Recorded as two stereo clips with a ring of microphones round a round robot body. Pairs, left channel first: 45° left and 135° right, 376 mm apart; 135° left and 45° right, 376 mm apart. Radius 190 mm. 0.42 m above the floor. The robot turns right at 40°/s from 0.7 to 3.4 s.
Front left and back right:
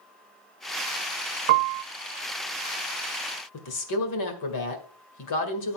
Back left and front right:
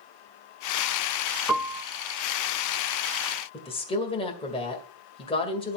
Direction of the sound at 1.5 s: 135° right.